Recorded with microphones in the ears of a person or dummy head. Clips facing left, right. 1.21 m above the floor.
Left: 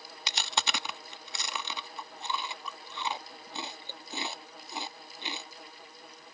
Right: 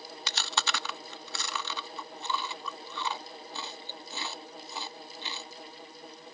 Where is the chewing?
20° left (ahead or behind).